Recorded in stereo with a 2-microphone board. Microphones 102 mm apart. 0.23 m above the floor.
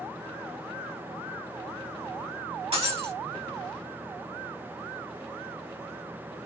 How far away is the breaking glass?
About 3 m.